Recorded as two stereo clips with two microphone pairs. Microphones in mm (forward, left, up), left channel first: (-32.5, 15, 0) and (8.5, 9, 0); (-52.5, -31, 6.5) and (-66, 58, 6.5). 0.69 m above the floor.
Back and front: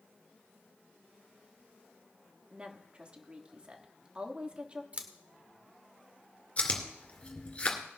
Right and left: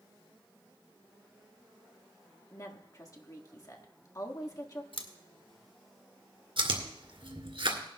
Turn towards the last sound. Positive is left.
turn(degrees=115)